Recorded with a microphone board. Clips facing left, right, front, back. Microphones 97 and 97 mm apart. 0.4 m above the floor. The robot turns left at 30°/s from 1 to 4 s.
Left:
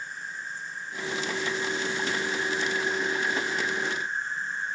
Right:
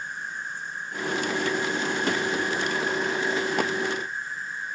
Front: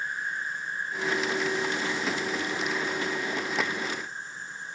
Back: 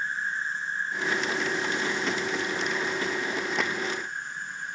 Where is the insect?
120° right, 0.8 m; by 4.8 s 150° left, 0.8 m.